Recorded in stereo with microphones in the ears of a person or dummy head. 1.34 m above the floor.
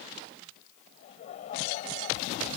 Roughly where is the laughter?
Left.